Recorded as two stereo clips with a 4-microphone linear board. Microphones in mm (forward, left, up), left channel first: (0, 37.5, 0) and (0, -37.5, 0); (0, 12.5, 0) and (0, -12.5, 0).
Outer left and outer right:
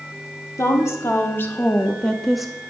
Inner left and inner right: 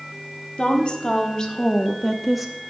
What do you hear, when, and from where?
0.6 s a woman speaking: 45° left (ahead or behind), 1.5 m; by 2.5 s 10° right (ahead or behind), 0.8 m